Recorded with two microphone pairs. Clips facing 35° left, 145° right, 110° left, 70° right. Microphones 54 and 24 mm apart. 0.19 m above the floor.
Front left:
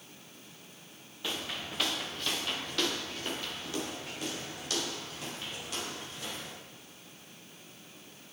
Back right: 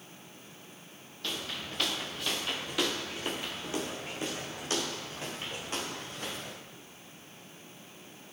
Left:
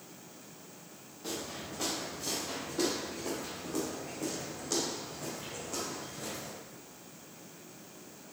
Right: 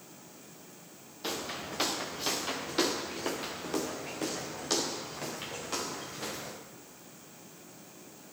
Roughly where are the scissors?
I don't hear scissors.